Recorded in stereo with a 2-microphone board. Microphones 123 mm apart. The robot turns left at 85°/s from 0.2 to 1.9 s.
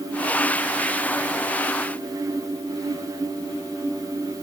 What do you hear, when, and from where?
Only background noise.